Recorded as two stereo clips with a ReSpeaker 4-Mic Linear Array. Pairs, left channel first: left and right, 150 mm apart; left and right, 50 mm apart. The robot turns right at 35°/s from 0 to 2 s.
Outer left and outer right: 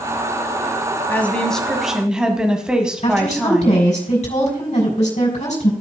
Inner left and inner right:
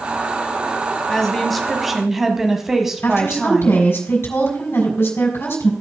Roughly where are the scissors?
I don't hear scissors.